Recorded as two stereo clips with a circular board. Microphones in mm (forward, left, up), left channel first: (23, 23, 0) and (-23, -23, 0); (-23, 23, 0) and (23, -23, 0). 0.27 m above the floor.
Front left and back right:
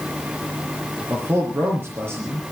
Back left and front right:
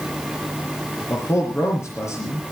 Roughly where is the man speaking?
Behind.